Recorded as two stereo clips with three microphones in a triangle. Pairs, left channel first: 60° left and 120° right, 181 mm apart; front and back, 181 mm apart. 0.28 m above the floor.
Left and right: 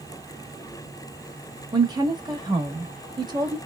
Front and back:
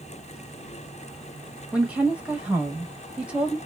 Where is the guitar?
I don't hear a guitar.